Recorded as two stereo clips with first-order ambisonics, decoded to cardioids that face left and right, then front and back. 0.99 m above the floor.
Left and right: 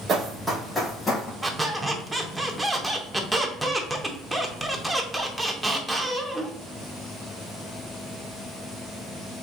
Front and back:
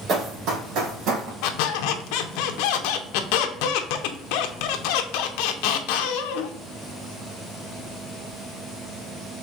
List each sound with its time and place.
0.1 s running footsteps: 140° right, 1.4 m; by 1.3 s 160° left, 2.5 m
1.4 s a squeak: 10° right, 0.6 m